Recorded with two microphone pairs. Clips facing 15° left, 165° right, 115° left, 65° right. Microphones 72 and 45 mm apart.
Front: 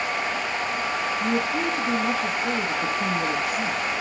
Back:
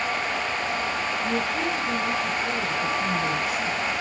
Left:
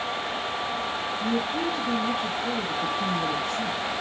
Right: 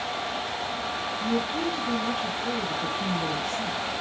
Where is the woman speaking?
50° left, 2.5 m.